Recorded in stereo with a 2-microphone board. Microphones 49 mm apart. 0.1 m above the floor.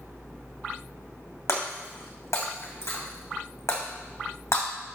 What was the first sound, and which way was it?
Breaking glass, 65° left (ahead or behind).